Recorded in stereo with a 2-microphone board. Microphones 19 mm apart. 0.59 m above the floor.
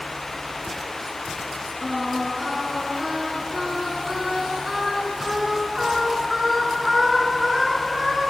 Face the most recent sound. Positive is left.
turn(degrees=-15)  # may be behind; listen again after turning